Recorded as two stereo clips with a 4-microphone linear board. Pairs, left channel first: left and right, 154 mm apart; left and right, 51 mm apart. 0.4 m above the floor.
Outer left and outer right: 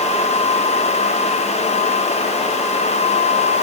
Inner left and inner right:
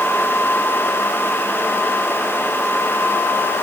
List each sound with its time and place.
Only background noise.